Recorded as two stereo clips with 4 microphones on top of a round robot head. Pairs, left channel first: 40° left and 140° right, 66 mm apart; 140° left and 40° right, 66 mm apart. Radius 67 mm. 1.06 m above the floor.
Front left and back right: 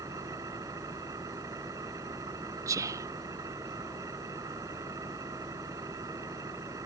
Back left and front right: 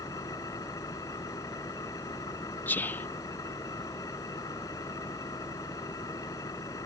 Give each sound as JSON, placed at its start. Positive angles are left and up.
{"t": 0.0, "sound": "an engine running", "azimuth_deg": 180}
{"t": 2.7, "sound": "whispering", "azimuth_deg": -160}